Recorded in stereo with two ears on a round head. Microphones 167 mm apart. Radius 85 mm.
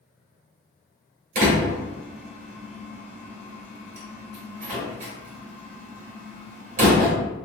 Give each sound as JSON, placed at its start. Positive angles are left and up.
{"t": 1.4, "sound": "a door slam", "side_deg": -40, "distance_m": 2.0}